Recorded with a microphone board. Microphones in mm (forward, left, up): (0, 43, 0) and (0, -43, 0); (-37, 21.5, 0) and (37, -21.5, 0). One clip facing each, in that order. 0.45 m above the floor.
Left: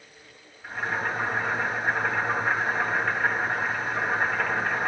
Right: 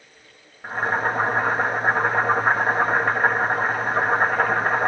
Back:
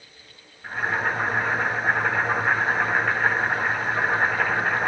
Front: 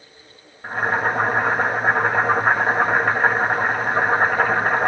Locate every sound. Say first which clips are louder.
0.6 s boiling: right 6 dB, front 4 dB; 60° right, 2.5 m